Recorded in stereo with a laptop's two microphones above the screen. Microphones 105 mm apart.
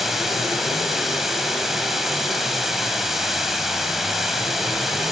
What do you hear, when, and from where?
0.0 s running water: 5° right (ahead or behind), 3 m